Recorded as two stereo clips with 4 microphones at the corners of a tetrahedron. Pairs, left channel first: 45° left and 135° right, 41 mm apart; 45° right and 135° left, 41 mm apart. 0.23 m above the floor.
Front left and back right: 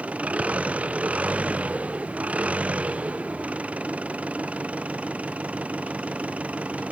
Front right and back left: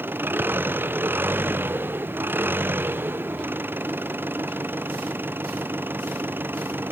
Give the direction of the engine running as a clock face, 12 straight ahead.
6 o'clock.